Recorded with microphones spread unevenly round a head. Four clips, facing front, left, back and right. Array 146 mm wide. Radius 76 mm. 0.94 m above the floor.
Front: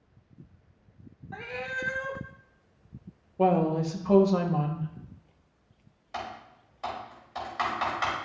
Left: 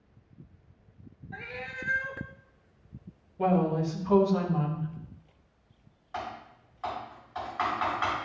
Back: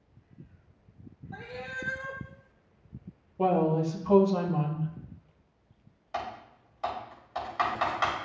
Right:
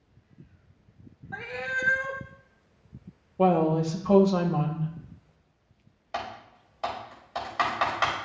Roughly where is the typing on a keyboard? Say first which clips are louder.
Right 2 dB, back 2 dB; right.